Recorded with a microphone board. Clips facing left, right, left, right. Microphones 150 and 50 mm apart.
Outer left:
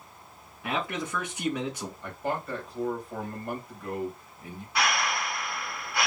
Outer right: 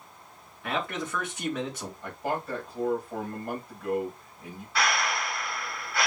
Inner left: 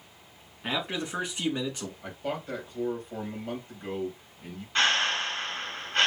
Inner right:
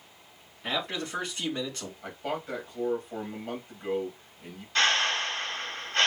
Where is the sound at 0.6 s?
10° left (ahead or behind), 2.5 m.